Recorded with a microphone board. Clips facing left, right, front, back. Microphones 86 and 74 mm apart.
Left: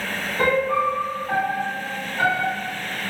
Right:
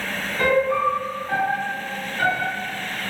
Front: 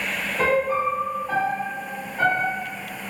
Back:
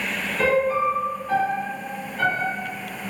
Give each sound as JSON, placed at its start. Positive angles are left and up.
{"t": 0.4, "sound": "a piano", "azimuth_deg": 50, "distance_m": 1.1}